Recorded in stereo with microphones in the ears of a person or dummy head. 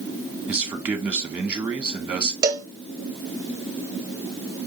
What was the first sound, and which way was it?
A man speaking, 5° right (ahead or behind).